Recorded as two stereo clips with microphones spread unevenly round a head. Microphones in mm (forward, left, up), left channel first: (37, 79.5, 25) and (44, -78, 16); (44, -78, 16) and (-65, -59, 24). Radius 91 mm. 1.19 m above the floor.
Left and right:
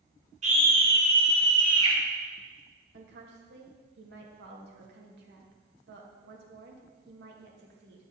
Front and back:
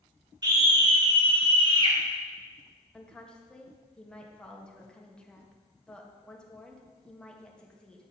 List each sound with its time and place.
0.4 s a scream: 140° right, 4 m; by 2.0 s 150° right, 3.5 m
2.9 s a woman speaking: 90° right, 1.8 m